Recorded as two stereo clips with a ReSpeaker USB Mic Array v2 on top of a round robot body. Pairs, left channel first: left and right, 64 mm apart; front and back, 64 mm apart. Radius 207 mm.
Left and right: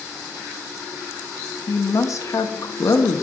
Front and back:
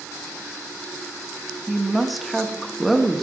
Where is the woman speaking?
90° left, 0.9 m.